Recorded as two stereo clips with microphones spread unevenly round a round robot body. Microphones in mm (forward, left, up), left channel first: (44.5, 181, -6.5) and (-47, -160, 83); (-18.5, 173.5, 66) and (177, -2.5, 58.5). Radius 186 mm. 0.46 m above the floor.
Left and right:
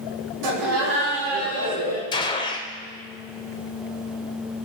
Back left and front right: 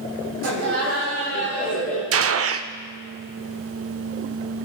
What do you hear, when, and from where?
0.4 s laughter: 80° right, 3 m; by 2.0 s 70° right, 4 m
2.1 s a gunshot: straight ahead, 0.6 m